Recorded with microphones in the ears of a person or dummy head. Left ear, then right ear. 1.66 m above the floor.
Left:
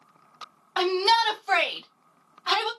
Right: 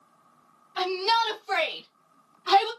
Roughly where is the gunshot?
I don't hear a gunshot.